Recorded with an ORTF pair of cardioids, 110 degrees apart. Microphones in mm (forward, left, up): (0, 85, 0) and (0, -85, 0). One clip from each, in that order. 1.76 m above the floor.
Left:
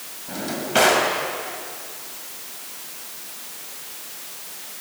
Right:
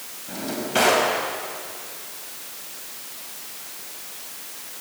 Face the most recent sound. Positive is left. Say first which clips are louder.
# left 2 dB
turn(degrees=15)